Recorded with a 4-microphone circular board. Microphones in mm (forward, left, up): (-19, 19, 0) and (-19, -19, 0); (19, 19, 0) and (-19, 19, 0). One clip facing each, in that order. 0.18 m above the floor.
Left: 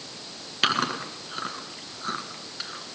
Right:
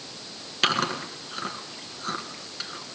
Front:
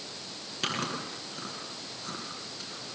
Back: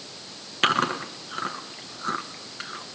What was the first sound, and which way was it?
Chewing, 175° left.